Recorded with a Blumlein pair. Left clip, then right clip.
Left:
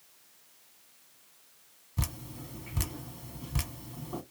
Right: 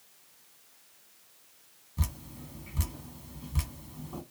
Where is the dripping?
20° left, 0.8 m.